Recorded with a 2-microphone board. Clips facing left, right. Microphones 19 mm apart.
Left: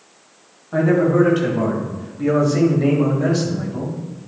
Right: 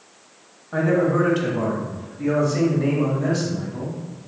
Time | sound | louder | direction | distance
0.7 | a man speaking | left 4 dB | centre (ahead or behind) | 2 m